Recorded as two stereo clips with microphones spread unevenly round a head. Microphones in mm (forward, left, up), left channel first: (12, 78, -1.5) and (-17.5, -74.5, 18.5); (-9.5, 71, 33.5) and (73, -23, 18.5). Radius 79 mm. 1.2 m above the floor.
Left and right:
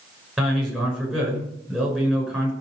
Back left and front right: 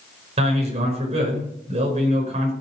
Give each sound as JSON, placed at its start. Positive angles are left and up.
{"t": 0.4, "sound": "a man speaking", "azimuth_deg": -15, "distance_m": 5.5}